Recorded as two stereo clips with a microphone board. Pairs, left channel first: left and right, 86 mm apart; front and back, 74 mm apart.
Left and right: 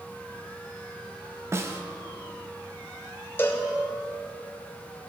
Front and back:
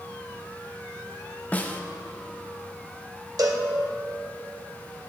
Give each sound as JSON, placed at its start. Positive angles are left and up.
{"t": 1.5, "sound": "a snare drum", "azimuth_deg": -55, "distance_m": 0.9}
{"t": 3.4, "sound": "a cowbell", "azimuth_deg": 155, "distance_m": 1.5}